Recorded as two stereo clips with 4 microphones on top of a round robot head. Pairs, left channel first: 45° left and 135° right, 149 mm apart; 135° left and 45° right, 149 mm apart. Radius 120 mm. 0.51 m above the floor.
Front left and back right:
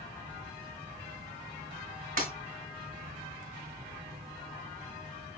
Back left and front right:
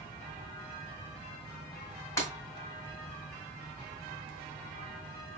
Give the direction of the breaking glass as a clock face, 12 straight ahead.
5 o'clock.